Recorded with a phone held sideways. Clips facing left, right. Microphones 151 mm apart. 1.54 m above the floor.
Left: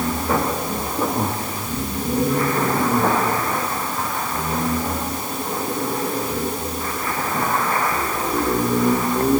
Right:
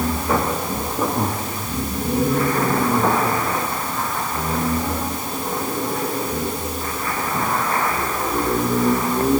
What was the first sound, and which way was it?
Only background noise.